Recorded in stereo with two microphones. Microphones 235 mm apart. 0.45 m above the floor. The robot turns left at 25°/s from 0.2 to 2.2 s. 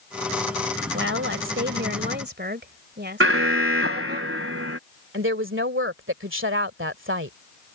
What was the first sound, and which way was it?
A woman speaking, 95° right.